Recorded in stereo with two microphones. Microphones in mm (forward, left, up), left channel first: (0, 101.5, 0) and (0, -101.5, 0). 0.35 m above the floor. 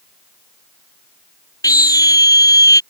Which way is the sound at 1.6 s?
15° left (ahead or behind).